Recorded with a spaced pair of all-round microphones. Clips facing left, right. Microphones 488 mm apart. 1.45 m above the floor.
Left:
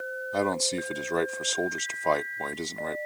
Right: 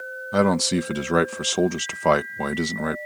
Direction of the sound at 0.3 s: 80° right.